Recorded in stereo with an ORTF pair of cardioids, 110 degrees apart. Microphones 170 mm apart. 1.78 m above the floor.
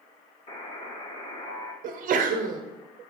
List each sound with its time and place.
0.5 s a buzzer: 35° left, 1.1 m
1.8 s a sneeze: 55° right, 0.7 m